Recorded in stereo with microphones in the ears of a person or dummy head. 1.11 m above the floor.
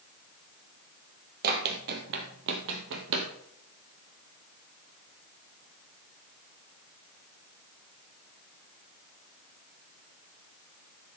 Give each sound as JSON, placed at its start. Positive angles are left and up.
{"t": 1.4, "sound": "running footsteps", "side_deg": -50, "distance_m": 2.0}